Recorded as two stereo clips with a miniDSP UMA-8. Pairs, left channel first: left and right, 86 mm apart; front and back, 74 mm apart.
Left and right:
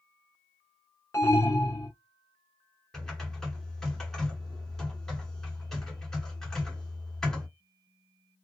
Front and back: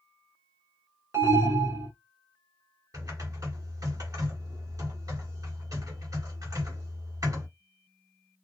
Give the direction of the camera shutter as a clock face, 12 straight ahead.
I don't hear a camera shutter.